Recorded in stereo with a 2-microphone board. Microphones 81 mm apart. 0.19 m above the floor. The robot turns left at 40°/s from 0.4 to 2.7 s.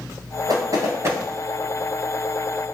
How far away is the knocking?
About 1.8 m.